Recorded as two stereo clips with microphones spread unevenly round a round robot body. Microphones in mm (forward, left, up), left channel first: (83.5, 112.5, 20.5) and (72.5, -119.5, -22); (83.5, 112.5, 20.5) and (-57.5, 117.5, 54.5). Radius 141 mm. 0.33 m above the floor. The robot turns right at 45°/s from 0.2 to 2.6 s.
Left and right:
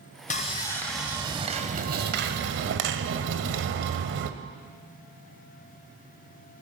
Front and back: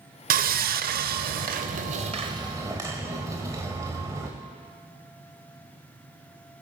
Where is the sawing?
155° left, 0.6 m; by 4.3 s 100° right, 0.6 m.